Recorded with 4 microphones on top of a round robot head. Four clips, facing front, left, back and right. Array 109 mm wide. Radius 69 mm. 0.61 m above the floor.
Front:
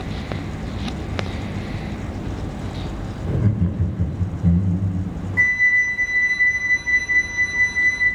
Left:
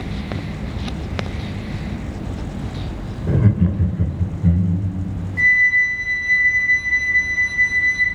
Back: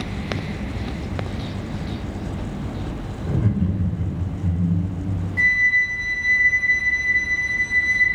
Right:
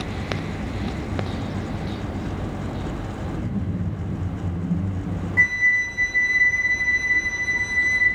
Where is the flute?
50° right, 5.5 m.